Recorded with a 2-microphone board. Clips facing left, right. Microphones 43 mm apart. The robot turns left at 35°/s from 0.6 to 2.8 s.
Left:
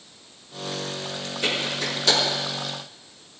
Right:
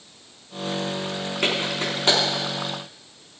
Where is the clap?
55° right (ahead or behind), 5 m; by 2.2 s 25° right (ahead or behind), 5 m.